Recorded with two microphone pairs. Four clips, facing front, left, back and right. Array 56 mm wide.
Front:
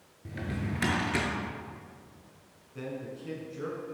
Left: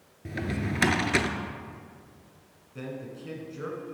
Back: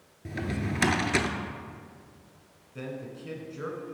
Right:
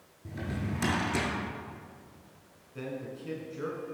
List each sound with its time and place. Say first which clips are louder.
0.2 s a drawer: left 5 dB, back 3 dB; 115° left, 0.6 m
2.8 s a man speaking: even, even; 175° right, 1.0 m